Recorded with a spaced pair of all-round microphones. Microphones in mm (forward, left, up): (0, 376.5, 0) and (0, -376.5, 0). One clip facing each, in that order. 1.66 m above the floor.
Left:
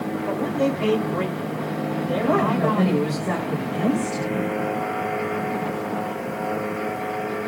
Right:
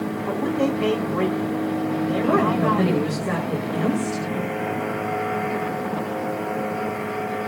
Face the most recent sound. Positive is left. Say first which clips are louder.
# even
turn(degrees=25)  # may be behind; listen again after turning